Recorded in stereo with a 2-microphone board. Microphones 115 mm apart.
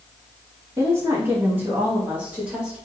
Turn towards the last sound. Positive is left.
turn(degrees=-10)  # may be behind; listen again after turning